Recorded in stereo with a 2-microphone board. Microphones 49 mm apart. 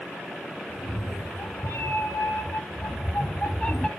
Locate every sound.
0.7 s a cat meowing: 80° left, 4.5 m; by 3.9 s 10° left (ahead or behind), 1.3 m